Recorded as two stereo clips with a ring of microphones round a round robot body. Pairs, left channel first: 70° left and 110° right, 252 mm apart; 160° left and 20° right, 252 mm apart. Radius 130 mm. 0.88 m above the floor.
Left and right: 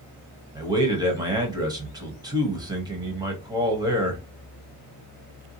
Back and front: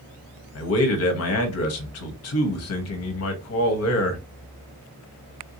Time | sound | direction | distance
0.6 | a man speaking | 175° left | 0.9 m